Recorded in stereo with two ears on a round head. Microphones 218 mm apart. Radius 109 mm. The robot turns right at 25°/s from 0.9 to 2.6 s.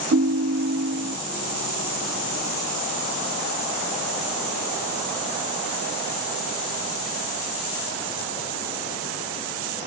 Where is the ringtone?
50° right (ahead or behind), 0.7 m; by 1.2 s 45° right (ahead or behind), 0.7 m.